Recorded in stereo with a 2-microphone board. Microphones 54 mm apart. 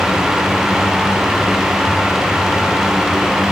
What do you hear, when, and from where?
Only background noise.